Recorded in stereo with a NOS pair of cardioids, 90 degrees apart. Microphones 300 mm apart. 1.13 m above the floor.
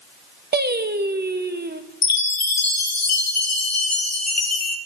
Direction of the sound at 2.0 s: 60° left.